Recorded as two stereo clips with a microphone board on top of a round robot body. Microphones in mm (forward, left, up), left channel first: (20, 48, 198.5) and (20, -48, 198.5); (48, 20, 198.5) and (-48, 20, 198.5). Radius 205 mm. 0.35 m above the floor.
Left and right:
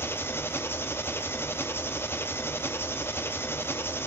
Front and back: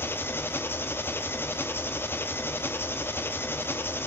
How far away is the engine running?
About 1.0 m.